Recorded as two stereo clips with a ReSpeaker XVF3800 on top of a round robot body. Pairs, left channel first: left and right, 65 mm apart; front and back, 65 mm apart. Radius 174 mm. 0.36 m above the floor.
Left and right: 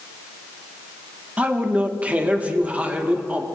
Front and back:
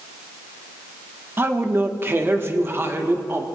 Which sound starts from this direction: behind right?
A man speaking, at 1.4 s.